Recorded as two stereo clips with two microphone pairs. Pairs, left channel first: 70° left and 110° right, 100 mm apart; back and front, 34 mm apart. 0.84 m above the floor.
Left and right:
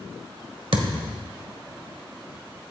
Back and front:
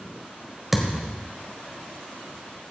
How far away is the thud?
About 1.5 m.